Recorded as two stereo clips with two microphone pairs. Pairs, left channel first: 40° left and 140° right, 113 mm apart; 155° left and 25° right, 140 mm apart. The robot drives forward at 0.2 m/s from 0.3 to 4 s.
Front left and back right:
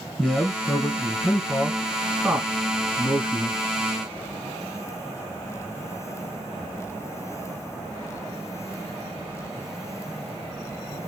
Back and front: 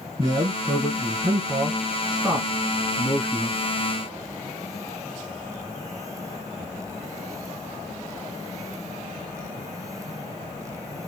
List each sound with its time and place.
0.2 s a man speaking: 35° right, 1.2 m; by 3.6 s 135° right, 1.2 m